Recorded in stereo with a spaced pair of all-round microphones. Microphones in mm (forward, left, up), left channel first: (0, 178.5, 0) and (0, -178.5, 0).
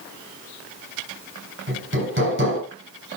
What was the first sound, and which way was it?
Hammering, 35° right (ahead or behind).